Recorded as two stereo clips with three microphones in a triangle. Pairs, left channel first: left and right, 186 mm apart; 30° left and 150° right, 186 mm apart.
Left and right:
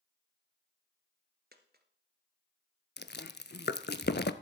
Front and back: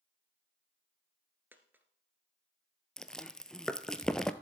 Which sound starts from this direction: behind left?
Chewing, at 3.0 s.